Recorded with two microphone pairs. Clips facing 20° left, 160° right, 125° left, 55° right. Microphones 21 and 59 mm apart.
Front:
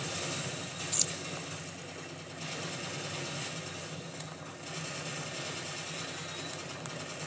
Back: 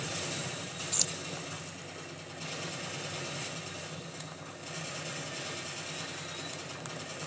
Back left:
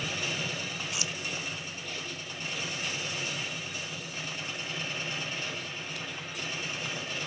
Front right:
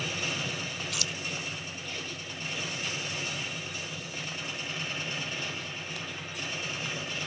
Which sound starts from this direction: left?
Keys jangling, at 0.9 s.